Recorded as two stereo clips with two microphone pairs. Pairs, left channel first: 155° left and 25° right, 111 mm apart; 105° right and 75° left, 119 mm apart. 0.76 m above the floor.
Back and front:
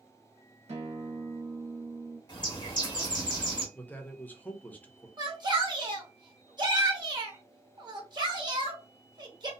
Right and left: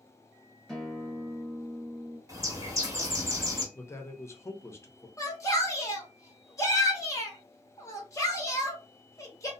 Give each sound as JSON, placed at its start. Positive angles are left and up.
{"t": 0.7, "sound": "a guitar", "azimuth_deg": -15, "distance_m": 1.2}
{"t": 2.3, "sound": "a bird", "azimuth_deg": 130, "distance_m": 1.2}
{"t": 3.8, "sound": "a man speaking", "azimuth_deg": -140, "distance_m": 0.6}
{"t": 5.2, "sound": "a shout", "azimuth_deg": -50, "distance_m": 1.0}